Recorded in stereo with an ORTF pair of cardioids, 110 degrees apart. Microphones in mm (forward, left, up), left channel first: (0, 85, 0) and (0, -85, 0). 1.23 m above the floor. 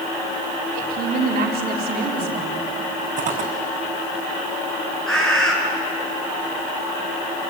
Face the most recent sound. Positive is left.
turn(degrees=5)